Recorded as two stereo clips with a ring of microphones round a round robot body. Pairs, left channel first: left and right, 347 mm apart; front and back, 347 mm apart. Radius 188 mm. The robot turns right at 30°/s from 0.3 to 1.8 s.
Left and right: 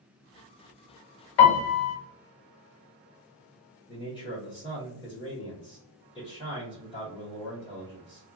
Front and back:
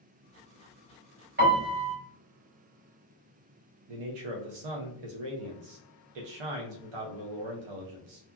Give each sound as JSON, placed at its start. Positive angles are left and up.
{"t": 1.4, "sound": "a piano", "azimuth_deg": 115, "distance_m": 0.7}
{"t": 3.9, "sound": "a man speaking", "azimuth_deg": 165, "distance_m": 0.5}